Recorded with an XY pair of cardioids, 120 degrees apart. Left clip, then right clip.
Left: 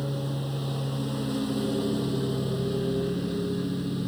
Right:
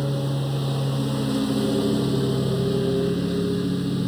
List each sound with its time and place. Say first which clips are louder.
0.0 s a lawn mower: right 5 dB; 30° right